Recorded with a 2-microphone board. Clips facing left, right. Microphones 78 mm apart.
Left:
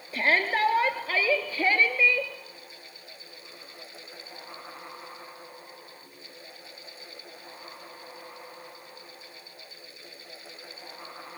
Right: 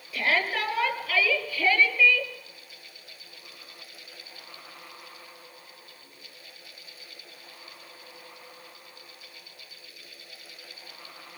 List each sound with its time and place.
0.1 s a shout: 35° left (ahead or behind), 5.5 m; by 2.3 s 20° left (ahead or behind), 4.5 m